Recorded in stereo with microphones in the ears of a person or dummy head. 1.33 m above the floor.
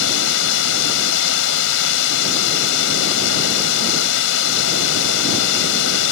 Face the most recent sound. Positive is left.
turn(degrees=75)  # may be behind; listen again after turning